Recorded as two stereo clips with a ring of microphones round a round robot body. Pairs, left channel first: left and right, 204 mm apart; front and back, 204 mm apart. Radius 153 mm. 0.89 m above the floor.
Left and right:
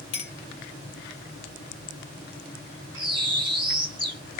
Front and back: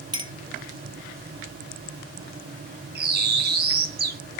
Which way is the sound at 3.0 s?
160° left.